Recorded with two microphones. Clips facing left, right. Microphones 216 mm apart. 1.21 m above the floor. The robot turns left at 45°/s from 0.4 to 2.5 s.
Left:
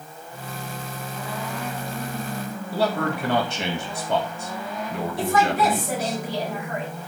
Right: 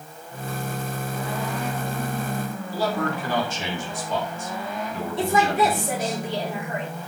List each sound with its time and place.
2.7 s a man speaking: 75° left (ahead or behind), 1.9 m
5.2 s a woman speaking: 25° right (ahead or behind), 3.5 m